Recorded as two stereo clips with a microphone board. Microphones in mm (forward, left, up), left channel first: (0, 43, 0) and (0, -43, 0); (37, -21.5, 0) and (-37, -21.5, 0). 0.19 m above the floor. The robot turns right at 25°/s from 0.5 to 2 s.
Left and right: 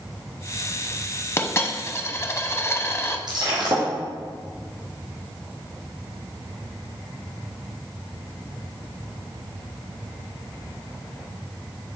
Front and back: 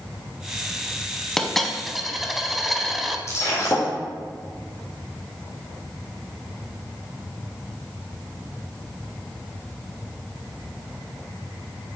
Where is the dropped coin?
75° left, 0.7 m; by 3.2 s 90° left, 0.7 m.